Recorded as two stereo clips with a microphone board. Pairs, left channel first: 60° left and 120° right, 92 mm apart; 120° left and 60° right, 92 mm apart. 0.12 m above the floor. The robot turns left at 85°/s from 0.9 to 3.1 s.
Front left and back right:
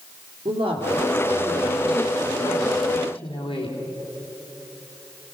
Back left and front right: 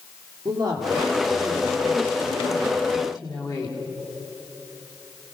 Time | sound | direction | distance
0.5 | a woman speaking | 95° right | 5 m